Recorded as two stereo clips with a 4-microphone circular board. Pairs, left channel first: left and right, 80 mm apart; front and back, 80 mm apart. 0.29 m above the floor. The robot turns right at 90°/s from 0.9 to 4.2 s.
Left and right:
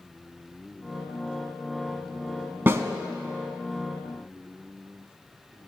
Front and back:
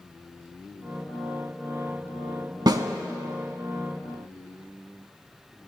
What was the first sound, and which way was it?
A snare drum, 155° right.